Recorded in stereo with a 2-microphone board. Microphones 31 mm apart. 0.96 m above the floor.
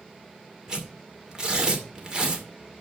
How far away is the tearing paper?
About 2.5 m.